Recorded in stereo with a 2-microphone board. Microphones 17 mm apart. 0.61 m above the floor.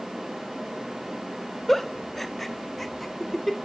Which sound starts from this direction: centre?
A giggle, at 1.7 s.